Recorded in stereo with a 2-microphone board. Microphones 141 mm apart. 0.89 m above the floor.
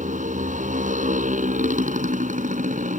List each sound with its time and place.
0.0 s a motorcycle: 65° right (ahead or behind)